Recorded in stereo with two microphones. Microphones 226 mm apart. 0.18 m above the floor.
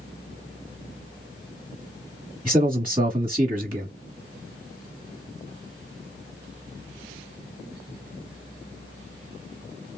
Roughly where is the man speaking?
Right.